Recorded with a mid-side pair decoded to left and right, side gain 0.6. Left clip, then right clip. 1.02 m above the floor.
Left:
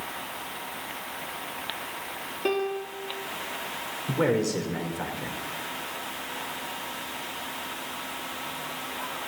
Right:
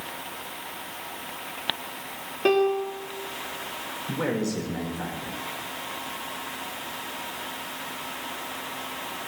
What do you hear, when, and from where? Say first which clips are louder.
2.5 s a piano: right 7 dB; 25° right, 2.5 m
4.1 s a man speaking: left 4 dB; 35° left, 4.5 m